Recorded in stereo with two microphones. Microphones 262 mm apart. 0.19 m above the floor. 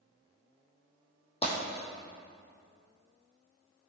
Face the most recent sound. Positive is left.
turn(degrees=20)  # may be behind; listen again after turning